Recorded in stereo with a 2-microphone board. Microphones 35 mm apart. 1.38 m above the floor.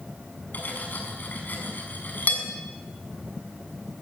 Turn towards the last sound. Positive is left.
turn(degrees=55)  # may be behind; listen again after turning